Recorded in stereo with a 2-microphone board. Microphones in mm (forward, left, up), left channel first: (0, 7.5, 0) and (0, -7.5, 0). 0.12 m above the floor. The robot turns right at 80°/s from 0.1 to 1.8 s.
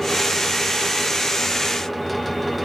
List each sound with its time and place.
Only background noise.